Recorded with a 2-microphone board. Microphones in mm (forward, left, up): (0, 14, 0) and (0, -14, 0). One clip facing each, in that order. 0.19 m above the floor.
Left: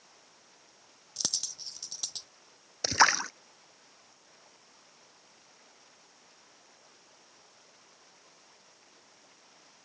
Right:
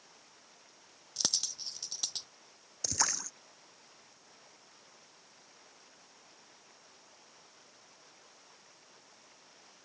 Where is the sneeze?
No sneeze in this recording.